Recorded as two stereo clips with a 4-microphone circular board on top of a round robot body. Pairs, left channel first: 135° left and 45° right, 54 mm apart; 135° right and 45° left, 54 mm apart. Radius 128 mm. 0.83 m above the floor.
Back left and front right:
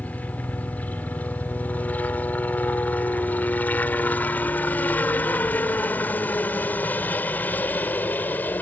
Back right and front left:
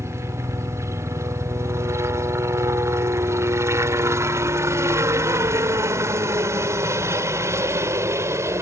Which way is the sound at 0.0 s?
75° left.